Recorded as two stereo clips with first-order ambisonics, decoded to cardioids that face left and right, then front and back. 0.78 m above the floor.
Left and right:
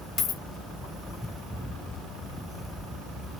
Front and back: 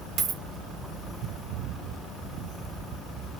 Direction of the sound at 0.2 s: 145° left.